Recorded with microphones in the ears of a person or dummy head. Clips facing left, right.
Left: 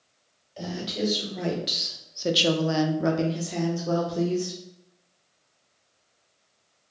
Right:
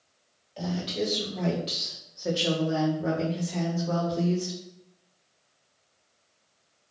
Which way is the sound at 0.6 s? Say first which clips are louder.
Even; centre (ahead or behind).